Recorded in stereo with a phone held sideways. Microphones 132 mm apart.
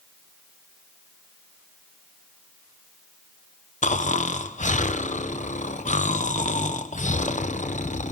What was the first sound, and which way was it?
Snoring, 70° left (ahead or behind).